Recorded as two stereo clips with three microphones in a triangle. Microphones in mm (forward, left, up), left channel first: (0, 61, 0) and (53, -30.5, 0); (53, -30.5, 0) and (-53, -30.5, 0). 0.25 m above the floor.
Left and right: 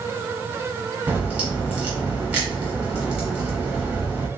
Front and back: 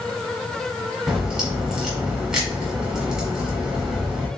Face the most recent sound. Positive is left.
turn(degrees=-115)